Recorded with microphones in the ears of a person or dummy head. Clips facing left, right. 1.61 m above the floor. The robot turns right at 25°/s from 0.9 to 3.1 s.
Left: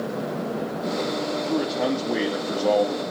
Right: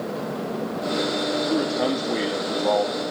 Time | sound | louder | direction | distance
1.4 | a man speaking | right 1 dB | 15° right | 3 m